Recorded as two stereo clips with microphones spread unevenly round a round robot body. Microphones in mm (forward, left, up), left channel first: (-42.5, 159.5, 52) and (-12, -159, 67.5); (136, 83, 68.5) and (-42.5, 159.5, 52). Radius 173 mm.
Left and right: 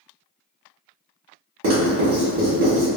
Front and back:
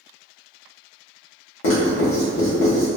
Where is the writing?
40° right, 1.3 m.